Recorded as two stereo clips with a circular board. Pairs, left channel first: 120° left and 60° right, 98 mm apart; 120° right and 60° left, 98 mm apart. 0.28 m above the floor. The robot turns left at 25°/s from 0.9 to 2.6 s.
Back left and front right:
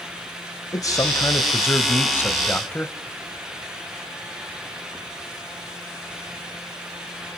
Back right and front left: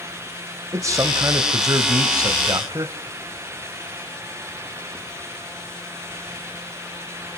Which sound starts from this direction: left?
A man speaking, at 0.7 s.